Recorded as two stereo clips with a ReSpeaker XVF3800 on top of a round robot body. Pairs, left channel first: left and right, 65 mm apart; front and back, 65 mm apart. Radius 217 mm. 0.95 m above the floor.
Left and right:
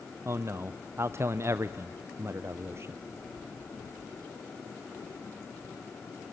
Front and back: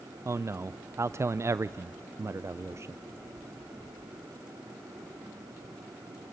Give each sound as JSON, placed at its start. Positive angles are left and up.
{"t": 0.2, "sound": "a man speaking", "azimuth_deg": -135, "distance_m": 0.5}